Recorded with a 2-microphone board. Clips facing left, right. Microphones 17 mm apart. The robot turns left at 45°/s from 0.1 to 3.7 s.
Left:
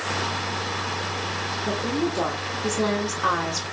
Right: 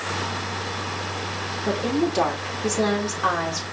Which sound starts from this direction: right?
A woman speaking, at 1.6 s.